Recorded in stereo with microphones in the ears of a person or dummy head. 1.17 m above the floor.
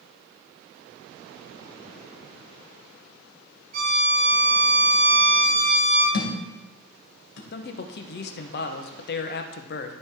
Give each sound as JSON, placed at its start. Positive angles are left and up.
{"t": 3.7, "sound": "a violin", "side_deg": -45, "distance_m": 5.0}
{"t": 6.1, "sound": "a thud", "side_deg": 75, "distance_m": 2.5}
{"t": 7.5, "sound": "a man speaking", "side_deg": 50, "distance_m": 0.8}